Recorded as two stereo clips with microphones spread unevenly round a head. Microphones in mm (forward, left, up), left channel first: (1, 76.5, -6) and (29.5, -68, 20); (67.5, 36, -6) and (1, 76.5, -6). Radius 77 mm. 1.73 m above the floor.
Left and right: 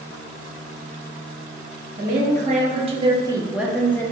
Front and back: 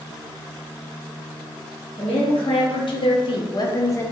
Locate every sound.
2.0 s a woman speaking: 50° right, 1.0 m; by 4.1 s 30° left, 0.6 m